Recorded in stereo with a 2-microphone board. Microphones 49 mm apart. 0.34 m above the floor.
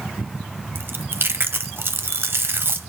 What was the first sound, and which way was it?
Chewing, 50° right (ahead or behind).